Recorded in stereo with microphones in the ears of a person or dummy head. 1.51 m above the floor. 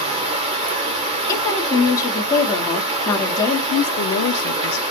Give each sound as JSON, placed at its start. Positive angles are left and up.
{"t": 0.0, "sound": "running water", "side_deg": -40, "distance_m": 0.8}
{"t": 1.3, "sound": "a woman speaking", "side_deg": 20, "distance_m": 1.0}
{"t": 3.7, "sound": "a woman speaking", "side_deg": 60, "distance_m": 0.6}